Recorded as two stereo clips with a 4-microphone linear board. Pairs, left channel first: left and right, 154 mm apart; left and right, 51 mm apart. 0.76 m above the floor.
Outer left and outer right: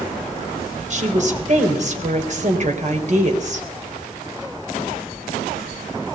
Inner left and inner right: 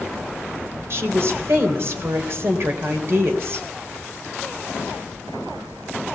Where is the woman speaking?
50° right (ahead or behind), 3.5 m.